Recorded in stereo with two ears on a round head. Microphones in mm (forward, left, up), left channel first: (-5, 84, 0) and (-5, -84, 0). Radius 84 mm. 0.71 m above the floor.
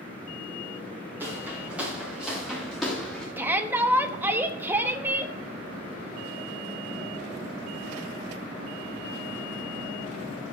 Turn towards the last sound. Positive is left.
turn(degrees=-10)  # may be behind; listen again after turning